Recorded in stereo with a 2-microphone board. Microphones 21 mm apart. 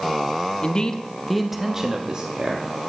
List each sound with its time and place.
0.6 s a man speaking: 35° left (ahead or behind), 0.7 m; by 2.9 s 60° right (ahead or behind), 1.1 m